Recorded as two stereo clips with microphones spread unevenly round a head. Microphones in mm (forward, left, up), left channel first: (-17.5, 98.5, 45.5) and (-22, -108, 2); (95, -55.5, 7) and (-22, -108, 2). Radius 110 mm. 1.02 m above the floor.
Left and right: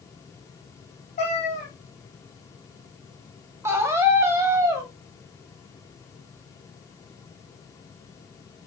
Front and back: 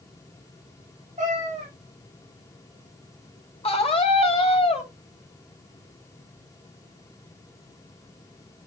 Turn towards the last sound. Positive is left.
turn(degrees=-15)